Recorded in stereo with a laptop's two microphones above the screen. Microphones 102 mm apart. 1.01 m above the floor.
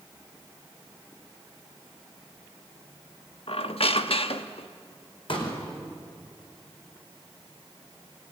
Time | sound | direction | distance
3.5 | a squeak | 70° left (ahead or behind) | 1.1 m
5.3 | a pop | 60° left (ahead or behind) | 5 m